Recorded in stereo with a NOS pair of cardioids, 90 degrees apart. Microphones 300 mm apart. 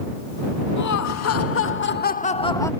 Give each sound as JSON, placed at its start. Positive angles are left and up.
{"t": 0.8, "sound": "laughter", "azimuth_deg": 60}